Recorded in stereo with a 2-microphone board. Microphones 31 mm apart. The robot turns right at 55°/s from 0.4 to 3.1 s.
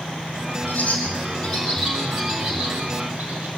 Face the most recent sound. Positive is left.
turn(degrees=-80)